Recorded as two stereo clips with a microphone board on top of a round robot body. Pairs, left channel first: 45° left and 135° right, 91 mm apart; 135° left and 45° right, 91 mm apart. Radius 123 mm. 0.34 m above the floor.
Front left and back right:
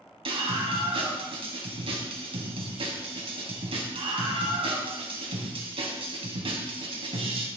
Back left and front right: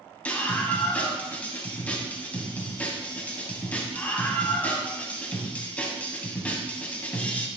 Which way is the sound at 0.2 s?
150° right.